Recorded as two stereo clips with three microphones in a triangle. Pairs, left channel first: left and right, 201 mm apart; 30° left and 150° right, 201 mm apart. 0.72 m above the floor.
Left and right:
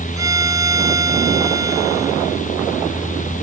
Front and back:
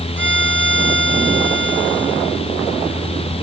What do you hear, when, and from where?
0.2 s a violin: 165° right